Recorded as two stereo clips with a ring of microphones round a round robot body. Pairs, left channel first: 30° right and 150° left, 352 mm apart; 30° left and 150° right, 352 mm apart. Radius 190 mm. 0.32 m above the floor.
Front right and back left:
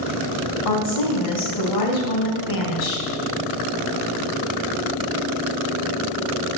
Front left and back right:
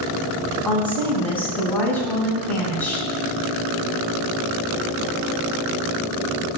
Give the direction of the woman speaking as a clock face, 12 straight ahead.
2 o'clock.